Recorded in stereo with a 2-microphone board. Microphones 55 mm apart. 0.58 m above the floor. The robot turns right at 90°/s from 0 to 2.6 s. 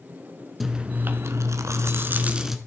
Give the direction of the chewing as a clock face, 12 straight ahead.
6 o'clock.